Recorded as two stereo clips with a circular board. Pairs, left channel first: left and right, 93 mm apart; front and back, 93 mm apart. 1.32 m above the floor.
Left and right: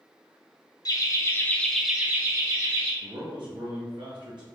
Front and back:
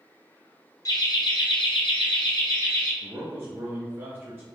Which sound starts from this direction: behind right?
A man speaking, at 3.0 s.